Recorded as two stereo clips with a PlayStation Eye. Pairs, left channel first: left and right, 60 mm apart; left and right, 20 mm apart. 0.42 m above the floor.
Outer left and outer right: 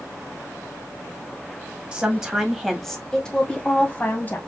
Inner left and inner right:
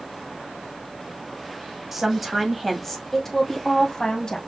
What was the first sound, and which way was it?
A woman speaking, 15° right (ahead or behind).